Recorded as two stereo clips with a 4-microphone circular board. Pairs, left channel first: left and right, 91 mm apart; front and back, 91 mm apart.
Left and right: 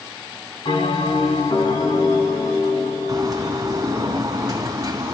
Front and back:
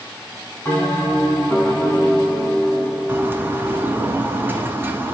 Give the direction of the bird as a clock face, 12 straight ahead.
4 o'clock.